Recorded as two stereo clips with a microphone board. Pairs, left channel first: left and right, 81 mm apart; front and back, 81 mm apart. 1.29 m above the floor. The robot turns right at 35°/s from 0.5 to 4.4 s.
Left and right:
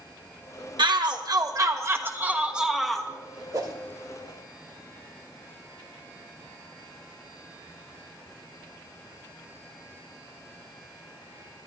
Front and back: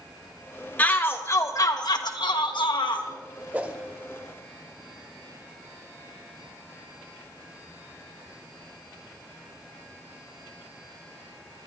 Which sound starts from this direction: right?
A shout, at 0.8 s.